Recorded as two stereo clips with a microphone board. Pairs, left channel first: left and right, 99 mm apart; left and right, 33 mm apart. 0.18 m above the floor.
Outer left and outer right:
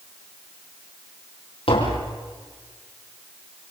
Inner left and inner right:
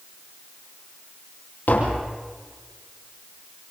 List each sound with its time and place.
1.7 s tapping: 60° left (ahead or behind), 5.5 m